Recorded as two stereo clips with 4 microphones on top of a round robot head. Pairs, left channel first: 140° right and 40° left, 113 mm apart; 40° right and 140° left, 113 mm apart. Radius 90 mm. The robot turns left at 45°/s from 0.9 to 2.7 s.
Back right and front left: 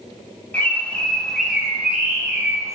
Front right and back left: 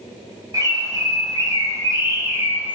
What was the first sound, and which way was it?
A bird, 155° left.